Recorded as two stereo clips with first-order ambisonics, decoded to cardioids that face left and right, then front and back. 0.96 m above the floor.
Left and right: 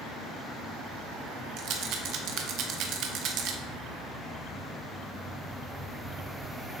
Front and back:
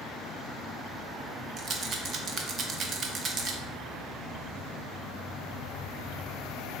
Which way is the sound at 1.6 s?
125° right.